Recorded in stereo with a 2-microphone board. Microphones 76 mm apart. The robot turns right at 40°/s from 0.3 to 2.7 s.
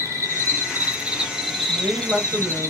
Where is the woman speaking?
20° right (ahead or behind), 1.1 m.